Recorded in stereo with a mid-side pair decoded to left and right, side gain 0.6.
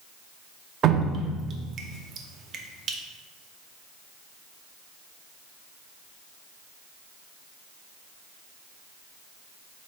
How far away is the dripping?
About 0.6 m.